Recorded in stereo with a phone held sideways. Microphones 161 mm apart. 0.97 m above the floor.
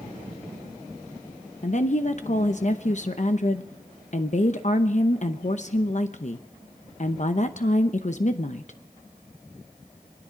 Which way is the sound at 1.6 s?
50° left (ahead or behind).